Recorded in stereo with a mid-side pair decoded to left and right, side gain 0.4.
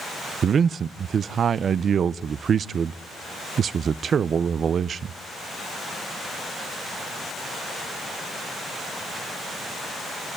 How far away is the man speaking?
About 0.6 m.